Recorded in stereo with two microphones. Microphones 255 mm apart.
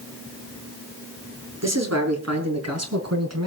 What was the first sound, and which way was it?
A man speaking, 75° right (ahead or behind).